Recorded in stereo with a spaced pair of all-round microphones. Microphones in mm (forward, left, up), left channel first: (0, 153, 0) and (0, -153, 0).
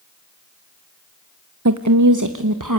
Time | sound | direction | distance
1.6 | a woman speaking | 60° right (ahead or behind) | 0.8 m